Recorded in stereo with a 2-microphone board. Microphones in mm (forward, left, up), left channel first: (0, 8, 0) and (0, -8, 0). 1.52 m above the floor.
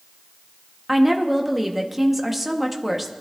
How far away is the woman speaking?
About 1.3 m.